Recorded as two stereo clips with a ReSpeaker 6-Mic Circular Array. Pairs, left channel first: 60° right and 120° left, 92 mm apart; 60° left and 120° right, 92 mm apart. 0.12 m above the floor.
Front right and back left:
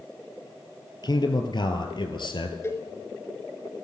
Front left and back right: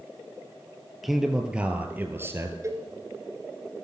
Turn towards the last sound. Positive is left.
turn(degrees=-95)